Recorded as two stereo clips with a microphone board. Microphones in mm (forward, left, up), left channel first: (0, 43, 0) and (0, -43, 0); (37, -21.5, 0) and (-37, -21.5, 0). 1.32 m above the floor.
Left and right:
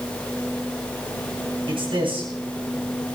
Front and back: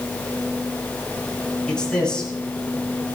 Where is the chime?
No chime in this recording.